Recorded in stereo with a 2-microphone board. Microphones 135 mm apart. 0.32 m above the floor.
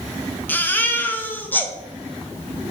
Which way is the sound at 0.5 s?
15° left (ahead or behind).